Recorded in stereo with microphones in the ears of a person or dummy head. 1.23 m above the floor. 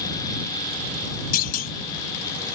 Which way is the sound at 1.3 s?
50° left (ahead or behind).